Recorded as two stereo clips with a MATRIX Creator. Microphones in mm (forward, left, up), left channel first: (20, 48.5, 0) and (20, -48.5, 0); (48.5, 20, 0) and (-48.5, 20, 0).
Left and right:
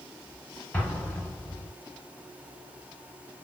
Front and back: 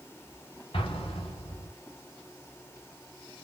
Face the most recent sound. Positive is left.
turn(degrees=20)